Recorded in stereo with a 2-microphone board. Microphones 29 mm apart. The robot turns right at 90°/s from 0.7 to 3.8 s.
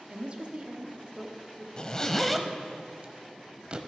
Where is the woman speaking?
50° right, 1.0 m; by 1.7 s 35° left, 1.0 m.